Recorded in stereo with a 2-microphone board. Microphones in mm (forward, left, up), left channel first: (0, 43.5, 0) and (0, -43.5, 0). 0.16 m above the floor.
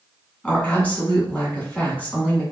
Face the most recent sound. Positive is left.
turn(degrees=15)  # may be behind; listen again after turning